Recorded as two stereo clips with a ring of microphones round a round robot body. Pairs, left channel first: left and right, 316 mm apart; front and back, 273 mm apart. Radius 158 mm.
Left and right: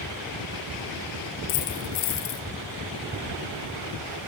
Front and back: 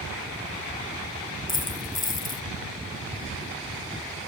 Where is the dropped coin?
60° left, 3 m.